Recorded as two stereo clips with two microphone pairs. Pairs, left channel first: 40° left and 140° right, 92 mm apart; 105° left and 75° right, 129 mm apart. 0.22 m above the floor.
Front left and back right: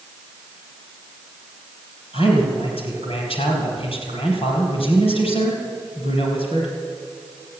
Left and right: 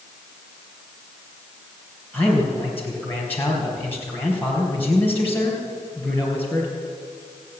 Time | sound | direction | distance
2.1 | a man speaking | 30° left | 4.5 m